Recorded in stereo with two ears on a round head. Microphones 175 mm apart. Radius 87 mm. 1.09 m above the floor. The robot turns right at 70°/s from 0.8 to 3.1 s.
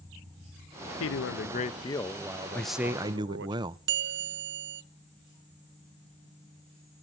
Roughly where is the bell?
Right.